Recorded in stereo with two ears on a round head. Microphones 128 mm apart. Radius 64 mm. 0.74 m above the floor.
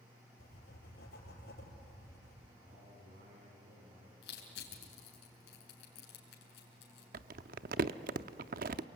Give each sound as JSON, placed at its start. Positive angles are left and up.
{"t": 0.4, "sound": "writing", "side_deg": 85, "distance_m": 6.0}
{"t": 2.6, "sound": "a man speaking", "side_deg": -65, "distance_m": 6.5}
{"t": 4.2, "sound": "crushing", "side_deg": 80, "distance_m": 5.5}
{"t": 7.1, "sound": "crumpling", "side_deg": -60, "distance_m": 0.7}